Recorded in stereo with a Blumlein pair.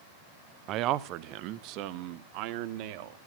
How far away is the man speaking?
About 0.9 m.